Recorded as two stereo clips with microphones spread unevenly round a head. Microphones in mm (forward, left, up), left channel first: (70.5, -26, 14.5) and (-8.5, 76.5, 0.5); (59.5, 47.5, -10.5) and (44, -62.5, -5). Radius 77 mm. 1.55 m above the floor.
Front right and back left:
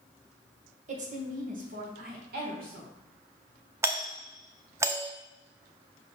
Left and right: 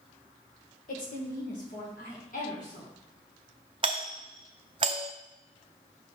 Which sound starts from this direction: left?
A woman speaking, at 0.9 s.